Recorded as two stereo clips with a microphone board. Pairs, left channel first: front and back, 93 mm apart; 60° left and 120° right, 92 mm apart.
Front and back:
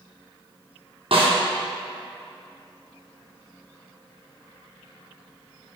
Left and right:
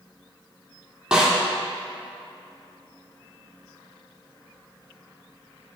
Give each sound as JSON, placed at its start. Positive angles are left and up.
{"t": 1.1, "sound": "a snare drum", "azimuth_deg": 160, "distance_m": 2.5}